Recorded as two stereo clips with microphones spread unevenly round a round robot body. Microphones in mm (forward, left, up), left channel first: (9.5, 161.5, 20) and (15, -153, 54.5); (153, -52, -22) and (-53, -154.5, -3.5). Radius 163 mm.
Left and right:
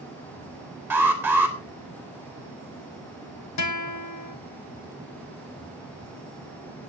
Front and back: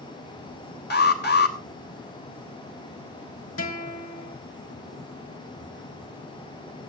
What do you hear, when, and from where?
0.9 s an alarm: 5° right, 3.5 m
3.6 s a guitar: 65° left, 1.8 m